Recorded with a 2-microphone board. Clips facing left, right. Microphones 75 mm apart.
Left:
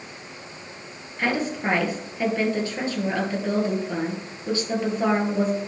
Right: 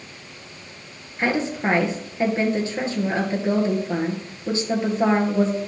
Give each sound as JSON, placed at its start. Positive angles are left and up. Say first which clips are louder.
{"t": 1.2, "sound": "a woman speaking", "louder": "right 2 dB", "side_deg": -20, "distance_m": 2.0}